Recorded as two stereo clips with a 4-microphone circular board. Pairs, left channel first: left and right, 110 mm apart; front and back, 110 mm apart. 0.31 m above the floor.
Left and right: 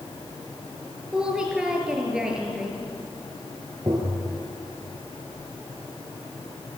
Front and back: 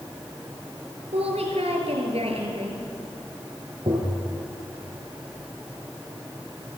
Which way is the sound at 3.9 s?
145° right.